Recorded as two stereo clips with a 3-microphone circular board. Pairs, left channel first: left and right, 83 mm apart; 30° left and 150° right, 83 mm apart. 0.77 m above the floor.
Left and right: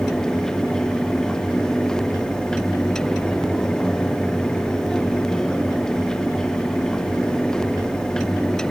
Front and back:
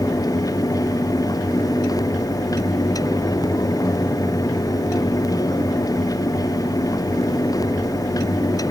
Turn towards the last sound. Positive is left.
No sound to turn to.